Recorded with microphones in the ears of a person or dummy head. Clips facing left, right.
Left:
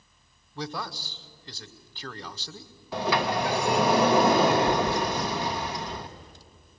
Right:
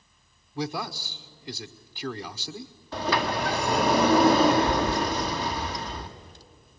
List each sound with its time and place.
0.6 s a man speaking: 10° right (ahead or behind), 0.7 m
2.9 s a sliding door: 10° left (ahead or behind), 0.9 m